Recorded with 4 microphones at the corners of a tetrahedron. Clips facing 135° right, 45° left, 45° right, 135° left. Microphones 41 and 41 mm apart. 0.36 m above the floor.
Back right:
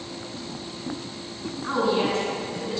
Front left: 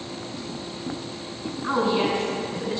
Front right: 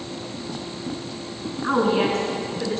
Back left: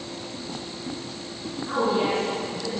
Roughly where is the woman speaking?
Ahead right.